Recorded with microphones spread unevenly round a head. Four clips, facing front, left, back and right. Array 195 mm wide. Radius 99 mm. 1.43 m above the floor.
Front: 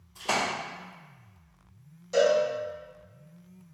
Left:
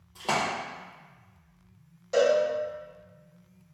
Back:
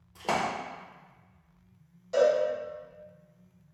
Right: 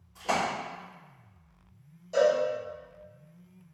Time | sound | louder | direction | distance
0.1 | a splash | even, even | 145° left | 0.9 m
2.1 | a cowbell | left 1 dB, front 1 dB | 85° left | 2.0 m